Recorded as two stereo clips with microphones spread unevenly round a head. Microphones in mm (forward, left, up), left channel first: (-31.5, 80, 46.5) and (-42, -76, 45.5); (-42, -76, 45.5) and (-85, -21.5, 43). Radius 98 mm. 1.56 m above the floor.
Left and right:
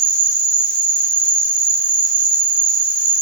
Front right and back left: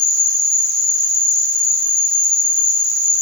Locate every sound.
0.0 s an insect: 75° right, 4 m